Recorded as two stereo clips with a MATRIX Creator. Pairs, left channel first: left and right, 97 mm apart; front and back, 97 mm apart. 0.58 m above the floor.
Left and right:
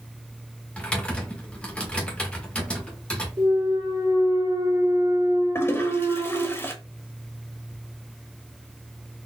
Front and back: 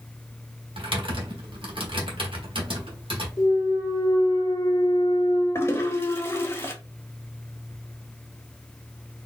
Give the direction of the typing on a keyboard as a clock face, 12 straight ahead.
6 o'clock.